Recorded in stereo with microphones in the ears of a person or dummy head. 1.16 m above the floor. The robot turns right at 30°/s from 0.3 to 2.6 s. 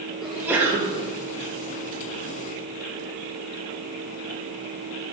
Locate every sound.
0.2 s a sneeze: 5° right (ahead or behind), 0.6 m; by 1.1 s 25° right (ahead or behind), 0.6 m